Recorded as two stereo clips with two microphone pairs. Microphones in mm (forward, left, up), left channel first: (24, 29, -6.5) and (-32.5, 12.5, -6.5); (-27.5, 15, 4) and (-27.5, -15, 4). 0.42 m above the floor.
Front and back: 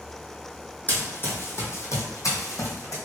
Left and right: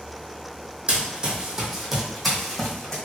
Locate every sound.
0.9 s running footsteps: 45° right, 1.0 m; by 3.0 s 15° left, 1.4 m